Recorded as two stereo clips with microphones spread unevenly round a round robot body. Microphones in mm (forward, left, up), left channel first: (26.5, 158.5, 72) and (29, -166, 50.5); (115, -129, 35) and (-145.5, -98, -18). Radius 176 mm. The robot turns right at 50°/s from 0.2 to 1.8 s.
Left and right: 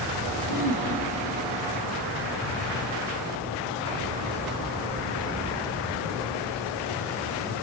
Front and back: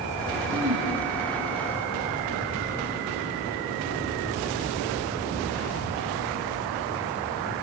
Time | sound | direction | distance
0.5 | throat clearing | 125° left | 6 m